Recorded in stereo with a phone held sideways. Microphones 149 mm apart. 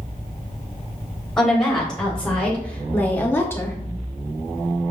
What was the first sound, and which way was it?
A woman speaking, 5° left (ahead or behind).